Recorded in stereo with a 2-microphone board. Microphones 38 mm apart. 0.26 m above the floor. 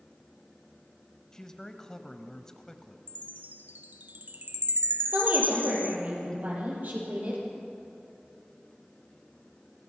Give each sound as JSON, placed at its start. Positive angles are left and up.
{"t": 1.3, "sound": "a man speaking", "side_deg": 15, "distance_m": 1.2}
{"t": 3.1, "sound": "a chime", "side_deg": -50, "distance_m": 1.0}
{"t": 5.1, "sound": "a woman speaking", "side_deg": -50, "distance_m": 7.0}